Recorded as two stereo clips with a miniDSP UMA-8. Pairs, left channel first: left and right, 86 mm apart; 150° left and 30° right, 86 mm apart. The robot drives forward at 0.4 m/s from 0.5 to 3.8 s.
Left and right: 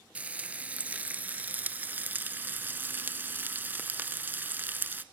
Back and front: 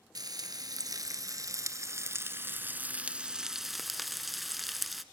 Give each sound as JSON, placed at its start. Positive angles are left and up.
{"t": 0.1, "sound": "frying", "azimuth_deg": -20, "distance_m": 1.6}